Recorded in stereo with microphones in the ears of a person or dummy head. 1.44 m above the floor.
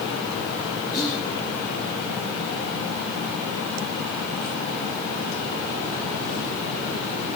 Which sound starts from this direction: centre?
Whispering, at 0.9 s.